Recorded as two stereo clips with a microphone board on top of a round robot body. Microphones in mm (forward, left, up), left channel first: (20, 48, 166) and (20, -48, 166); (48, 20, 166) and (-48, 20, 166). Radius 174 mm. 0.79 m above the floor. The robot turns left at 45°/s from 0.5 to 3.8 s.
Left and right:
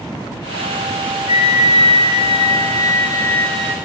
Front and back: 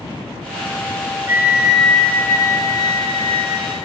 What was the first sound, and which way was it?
A flute, 115° left.